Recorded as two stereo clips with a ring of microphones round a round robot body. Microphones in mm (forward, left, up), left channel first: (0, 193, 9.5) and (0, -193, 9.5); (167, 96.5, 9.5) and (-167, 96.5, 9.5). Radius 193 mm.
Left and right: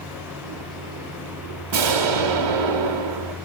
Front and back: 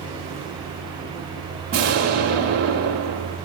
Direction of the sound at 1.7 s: 115° right.